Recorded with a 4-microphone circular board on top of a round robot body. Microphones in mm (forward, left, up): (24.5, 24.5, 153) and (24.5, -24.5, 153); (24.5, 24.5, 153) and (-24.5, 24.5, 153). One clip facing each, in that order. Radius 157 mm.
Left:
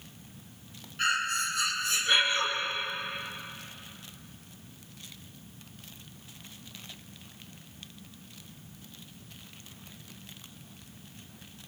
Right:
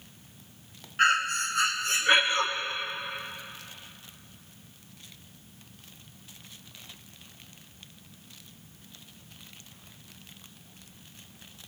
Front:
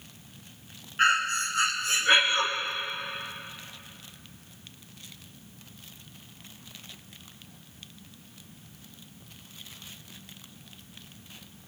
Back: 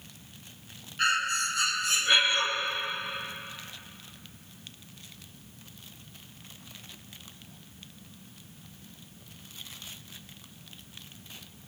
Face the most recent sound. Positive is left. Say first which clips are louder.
# right 5 dB, front 3 dB
turn(degrees=-50)